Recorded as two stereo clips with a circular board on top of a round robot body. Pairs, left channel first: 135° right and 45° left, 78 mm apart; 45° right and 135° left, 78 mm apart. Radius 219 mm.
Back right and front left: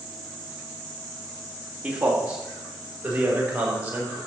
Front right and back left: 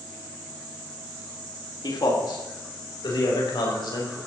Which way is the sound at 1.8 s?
30° right.